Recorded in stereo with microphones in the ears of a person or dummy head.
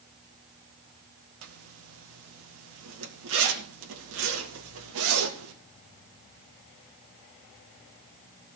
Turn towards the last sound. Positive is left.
turn(degrees=-75)  # may be behind; listen again after turning